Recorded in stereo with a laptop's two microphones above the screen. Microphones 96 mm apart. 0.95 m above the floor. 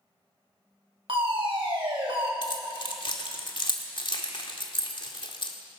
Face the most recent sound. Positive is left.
turn(degrees=55)  # may be behind; listen again after turning